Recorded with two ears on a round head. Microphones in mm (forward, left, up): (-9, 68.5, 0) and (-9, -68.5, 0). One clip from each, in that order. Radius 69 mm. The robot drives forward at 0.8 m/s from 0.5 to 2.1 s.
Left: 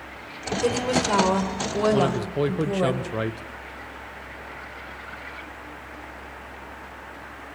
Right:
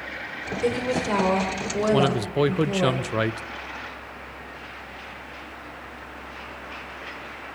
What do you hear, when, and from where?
0.6 s a woman speaking: 35° left (ahead or behind), 2.5 m; by 2.9 s 25° left (ahead or behind), 3.5 m
1.9 s a man speaking: 30° right (ahead or behind), 0.5 m